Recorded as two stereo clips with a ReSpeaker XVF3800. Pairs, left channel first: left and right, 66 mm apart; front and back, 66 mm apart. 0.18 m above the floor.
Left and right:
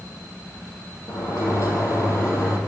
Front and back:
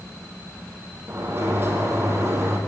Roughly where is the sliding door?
Behind left.